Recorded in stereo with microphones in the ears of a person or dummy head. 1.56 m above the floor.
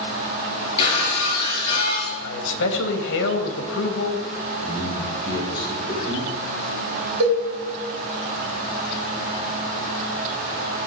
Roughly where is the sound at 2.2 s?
Left.